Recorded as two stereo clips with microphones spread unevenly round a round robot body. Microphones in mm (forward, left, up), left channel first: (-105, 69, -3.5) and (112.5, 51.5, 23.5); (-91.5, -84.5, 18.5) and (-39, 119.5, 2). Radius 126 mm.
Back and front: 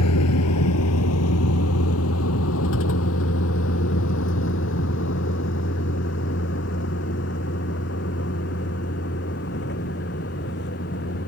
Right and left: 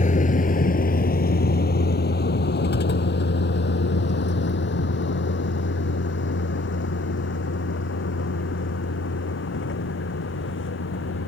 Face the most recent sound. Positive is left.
turn(degrees=-130)